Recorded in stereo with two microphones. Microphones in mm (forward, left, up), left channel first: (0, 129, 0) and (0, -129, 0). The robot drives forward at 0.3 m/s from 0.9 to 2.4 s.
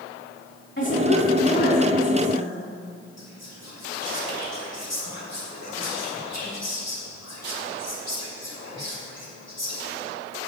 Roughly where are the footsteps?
No footsteps in this recording.